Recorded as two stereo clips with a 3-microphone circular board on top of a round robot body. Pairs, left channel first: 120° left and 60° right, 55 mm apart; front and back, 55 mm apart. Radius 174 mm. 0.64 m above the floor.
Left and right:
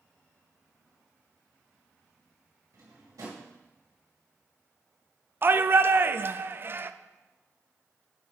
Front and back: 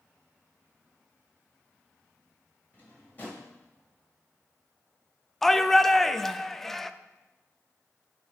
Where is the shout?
85° right, 0.6 m.